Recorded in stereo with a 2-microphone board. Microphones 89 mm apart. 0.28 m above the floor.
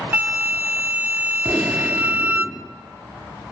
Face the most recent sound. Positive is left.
turn(degrees=-20)  # may be behind; listen again after turning